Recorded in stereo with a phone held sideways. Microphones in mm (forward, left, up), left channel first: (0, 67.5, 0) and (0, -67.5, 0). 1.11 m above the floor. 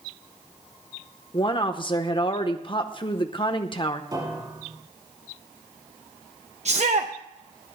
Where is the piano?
30° right (ahead or behind), 3 m.